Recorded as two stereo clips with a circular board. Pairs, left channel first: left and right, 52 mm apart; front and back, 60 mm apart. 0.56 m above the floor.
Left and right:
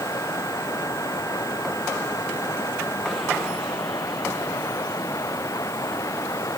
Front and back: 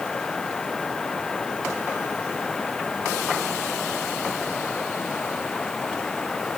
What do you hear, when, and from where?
0.0 s running water: 80° left